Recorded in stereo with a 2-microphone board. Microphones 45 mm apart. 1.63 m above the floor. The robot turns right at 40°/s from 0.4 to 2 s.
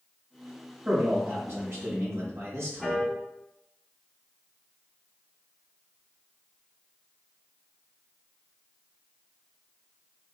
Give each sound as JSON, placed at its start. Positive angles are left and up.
{"t": 0.8, "sound": "a man speaking", "azimuth_deg": -155, "distance_m": 1.3}
{"t": 2.8, "sound": "a piano", "side_deg": -10, "distance_m": 1.4}